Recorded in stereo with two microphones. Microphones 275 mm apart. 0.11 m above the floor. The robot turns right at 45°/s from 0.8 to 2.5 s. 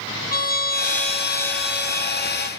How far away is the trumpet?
About 3.5 m.